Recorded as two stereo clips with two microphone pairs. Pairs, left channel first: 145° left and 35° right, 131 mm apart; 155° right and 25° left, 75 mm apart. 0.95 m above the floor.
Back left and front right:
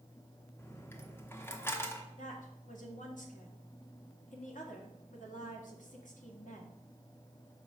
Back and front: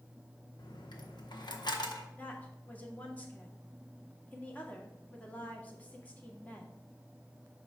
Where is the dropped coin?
145° right, 0.9 m.